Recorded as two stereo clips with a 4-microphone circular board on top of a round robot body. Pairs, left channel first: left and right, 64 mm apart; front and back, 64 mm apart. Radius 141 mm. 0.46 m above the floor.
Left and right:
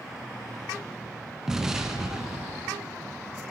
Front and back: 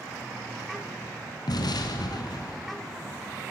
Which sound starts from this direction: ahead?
An explosion, at 1.5 s.